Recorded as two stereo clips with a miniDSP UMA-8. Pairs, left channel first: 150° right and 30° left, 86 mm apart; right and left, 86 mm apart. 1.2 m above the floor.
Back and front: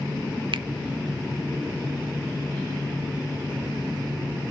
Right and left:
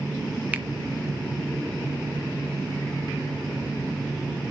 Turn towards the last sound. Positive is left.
turn(degrees=20)